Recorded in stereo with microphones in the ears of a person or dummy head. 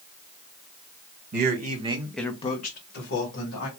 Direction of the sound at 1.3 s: 55° right (ahead or behind).